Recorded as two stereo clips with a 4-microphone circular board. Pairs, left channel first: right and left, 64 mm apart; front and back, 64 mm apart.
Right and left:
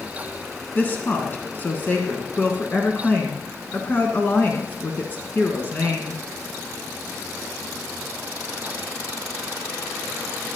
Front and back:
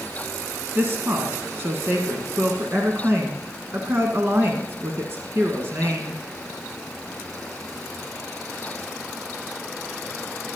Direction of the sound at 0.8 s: 145° right.